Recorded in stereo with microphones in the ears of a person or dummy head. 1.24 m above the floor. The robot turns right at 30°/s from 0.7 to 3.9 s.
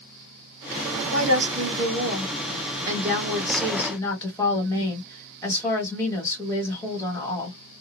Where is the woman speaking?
65° right, 1.6 m; by 7.6 s 20° left, 1.6 m.